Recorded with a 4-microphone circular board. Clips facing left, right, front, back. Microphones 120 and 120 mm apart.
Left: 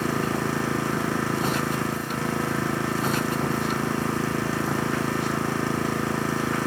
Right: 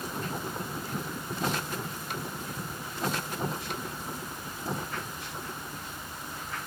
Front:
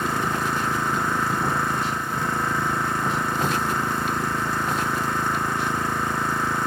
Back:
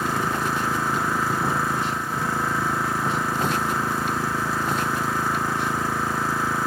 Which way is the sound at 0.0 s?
90° left.